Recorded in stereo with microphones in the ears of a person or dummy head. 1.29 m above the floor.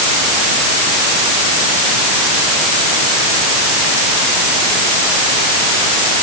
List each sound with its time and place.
Only background noise.